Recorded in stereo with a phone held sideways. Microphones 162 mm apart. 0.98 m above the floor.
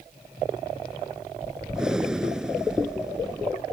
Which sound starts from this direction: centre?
Breathing, at 1.7 s.